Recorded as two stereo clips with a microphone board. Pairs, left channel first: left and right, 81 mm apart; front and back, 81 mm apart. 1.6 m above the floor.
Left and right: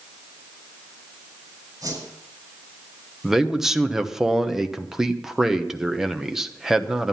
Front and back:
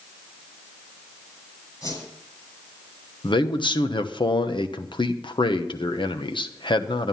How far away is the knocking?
No knocking in this recording.